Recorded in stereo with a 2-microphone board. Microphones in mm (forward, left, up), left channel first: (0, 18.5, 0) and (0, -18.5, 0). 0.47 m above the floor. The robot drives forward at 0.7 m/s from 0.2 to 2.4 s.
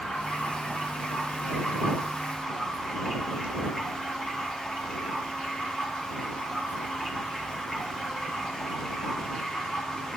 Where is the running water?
20° left (ahead or behind), 5.5 m; by 10.2 s 15° left (ahead or behind), 7 m.